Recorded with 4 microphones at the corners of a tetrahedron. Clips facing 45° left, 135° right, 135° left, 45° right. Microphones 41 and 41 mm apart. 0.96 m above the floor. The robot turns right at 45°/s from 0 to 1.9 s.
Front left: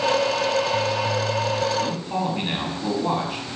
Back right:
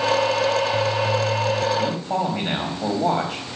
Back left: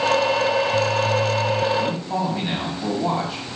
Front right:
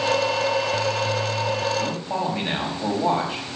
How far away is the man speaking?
About 4.5 m.